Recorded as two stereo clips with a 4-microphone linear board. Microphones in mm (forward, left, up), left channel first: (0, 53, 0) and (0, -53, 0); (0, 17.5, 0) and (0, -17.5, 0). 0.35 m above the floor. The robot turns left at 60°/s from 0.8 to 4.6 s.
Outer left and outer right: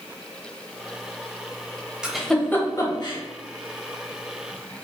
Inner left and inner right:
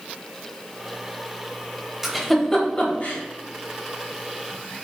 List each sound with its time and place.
2.0 s a giggle: 5° right (ahead or behind), 0.9 m; by 3.2 s 45° left (ahead or behind), 0.9 m